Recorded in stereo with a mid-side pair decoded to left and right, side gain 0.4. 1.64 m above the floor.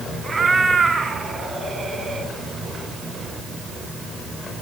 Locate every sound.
0.2 s a cat meowing: 35° right, 5.5 m